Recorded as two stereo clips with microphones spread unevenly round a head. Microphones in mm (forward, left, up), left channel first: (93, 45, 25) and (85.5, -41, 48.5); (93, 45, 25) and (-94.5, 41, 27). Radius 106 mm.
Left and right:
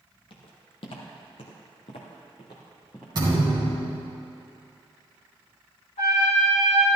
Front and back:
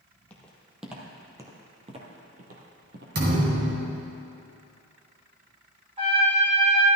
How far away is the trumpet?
About 3.5 m.